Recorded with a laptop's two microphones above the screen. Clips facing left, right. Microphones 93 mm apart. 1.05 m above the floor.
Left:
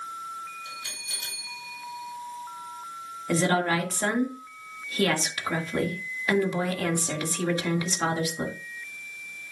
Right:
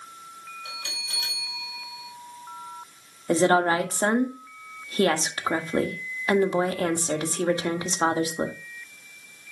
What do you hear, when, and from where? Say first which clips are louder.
0.7 s a bell: right 1 dB; 75° right (ahead or behind), 2.5 m
3.3 s a woman speaking: right 4 dB; 30° right (ahead or behind), 1.6 m